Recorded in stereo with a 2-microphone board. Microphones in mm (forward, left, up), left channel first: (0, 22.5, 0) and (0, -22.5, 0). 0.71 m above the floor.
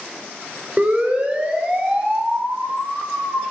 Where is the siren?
30° right (ahead or behind), 3.5 m; by 3.4 s centre (ahead or behind), 3.5 m.